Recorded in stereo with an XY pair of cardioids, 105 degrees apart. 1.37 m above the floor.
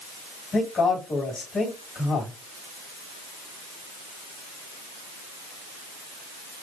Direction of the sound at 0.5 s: 40° left.